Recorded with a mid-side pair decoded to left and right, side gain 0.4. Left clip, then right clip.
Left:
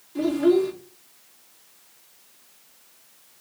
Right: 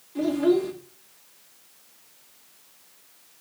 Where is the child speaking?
15° left, 3.5 m.